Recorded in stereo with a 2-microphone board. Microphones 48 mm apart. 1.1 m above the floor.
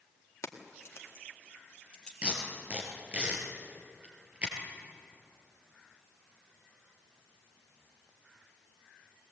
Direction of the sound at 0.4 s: 85° left.